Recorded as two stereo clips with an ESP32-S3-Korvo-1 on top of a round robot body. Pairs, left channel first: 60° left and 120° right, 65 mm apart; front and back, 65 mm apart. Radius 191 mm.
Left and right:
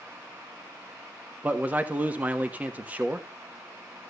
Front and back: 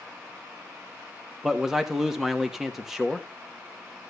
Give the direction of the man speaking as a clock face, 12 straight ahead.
3 o'clock.